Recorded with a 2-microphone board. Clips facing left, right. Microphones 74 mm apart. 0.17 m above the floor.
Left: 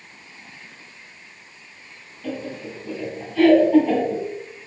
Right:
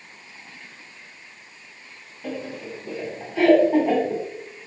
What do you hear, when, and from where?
2.2 s laughter: 15° right (ahead or behind), 1.1 m